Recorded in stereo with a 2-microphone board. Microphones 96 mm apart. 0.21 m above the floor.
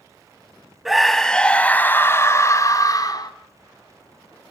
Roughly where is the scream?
Centre.